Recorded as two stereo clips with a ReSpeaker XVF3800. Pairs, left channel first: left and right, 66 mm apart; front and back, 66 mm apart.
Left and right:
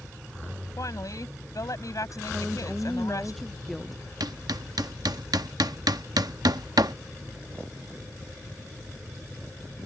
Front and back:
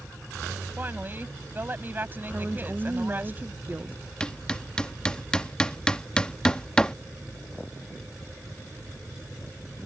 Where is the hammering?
75° right.